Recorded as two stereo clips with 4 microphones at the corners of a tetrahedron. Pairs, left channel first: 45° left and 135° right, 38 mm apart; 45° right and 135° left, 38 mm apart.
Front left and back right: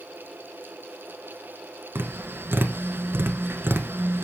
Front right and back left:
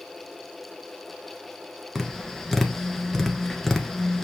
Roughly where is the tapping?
Behind right.